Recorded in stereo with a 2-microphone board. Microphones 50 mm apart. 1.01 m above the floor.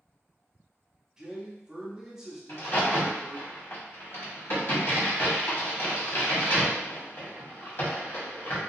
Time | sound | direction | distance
1.2 | a man speaking | 10° right (ahead or behind) | 0.7 m
2.5 | a crack | 50° left (ahead or behind) | 1.2 m